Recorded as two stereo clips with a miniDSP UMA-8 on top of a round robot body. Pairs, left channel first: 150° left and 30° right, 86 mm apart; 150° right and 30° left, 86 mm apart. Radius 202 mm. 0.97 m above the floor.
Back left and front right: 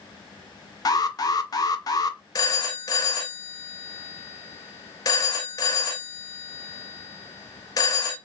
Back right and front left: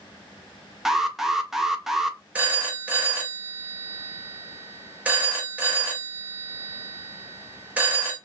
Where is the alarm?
115° left, 0.8 m.